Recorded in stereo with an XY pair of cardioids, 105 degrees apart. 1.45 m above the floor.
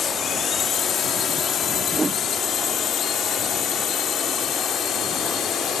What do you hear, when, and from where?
0.0 s a drone: 50° left; by 5.8 s 65° left
1.9 s a whoosh: 25° right